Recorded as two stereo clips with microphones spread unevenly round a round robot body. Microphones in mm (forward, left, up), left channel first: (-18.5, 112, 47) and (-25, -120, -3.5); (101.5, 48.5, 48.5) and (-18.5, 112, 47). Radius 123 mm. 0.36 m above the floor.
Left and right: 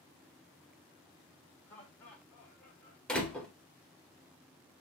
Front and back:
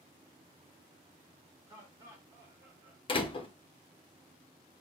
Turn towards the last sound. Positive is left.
turn(degrees=-10)